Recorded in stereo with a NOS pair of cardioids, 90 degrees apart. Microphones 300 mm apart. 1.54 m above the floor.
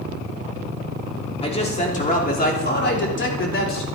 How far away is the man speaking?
About 3.5 m.